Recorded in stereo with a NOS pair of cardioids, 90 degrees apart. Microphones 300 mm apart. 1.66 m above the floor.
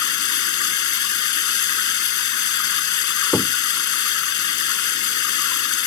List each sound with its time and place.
0.0 s running water: 70° left
3.3 s knocking: 5° left